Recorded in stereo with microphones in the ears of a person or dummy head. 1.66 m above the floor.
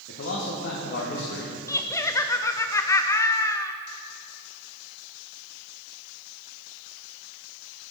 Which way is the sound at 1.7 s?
20° left (ahead or behind).